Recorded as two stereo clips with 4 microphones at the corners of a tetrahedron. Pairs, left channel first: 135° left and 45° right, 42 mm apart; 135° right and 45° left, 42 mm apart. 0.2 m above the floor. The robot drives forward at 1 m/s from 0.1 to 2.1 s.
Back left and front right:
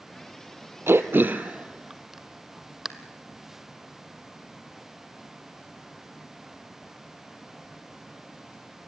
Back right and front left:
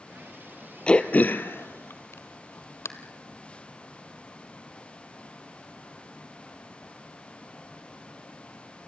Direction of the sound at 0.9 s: 70° right.